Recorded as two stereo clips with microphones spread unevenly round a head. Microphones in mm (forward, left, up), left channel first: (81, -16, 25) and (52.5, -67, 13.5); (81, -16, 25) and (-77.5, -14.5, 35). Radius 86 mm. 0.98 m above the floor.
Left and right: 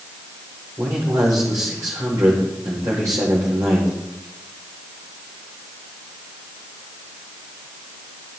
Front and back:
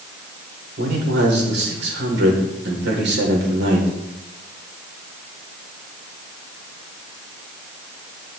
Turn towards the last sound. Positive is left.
turn(degrees=-175)